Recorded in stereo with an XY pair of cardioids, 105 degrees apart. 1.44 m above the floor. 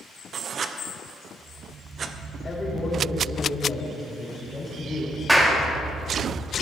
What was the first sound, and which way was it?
Writing, 50° right.